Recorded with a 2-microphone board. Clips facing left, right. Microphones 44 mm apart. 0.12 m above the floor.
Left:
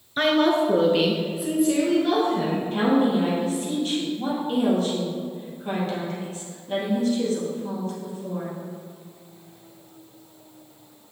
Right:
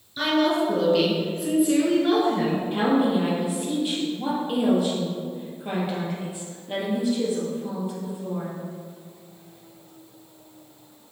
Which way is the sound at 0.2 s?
45° left (ahead or behind).